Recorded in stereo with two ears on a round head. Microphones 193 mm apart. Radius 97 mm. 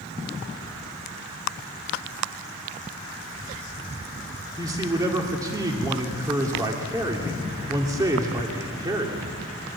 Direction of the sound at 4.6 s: 20° right (ahead or behind).